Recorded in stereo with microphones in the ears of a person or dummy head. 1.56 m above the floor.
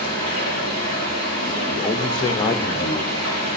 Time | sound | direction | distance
0.0 | running water | 85° right | 8.5 m
1.7 | a man speaking | 20° left (ahead or behind) | 1.0 m